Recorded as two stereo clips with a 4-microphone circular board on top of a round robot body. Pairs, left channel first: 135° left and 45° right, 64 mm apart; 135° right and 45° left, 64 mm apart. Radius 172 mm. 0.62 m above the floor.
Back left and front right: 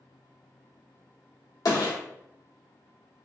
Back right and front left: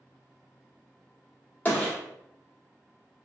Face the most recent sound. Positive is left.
turn(degrees=160)